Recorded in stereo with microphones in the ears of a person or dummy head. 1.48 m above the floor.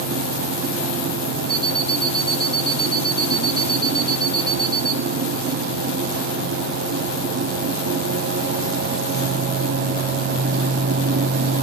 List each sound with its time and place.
1.5 s an alarm clock: 5° left (ahead or behind), 3.5 m